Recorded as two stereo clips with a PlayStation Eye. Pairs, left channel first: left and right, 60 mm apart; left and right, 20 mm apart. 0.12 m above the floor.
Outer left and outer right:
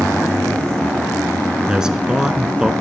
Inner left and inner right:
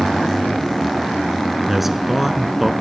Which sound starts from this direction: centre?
A man speaking, at 1.7 s.